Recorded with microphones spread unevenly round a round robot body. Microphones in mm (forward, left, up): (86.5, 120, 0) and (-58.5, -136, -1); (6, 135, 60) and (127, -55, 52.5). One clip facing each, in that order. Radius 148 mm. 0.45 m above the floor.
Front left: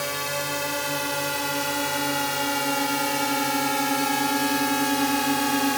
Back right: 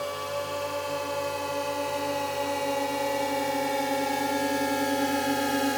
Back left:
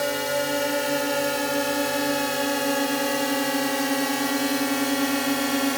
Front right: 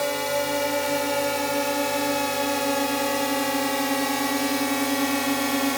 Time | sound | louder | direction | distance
0.0 | a drone | front left 1 dB, even | 45° left | ?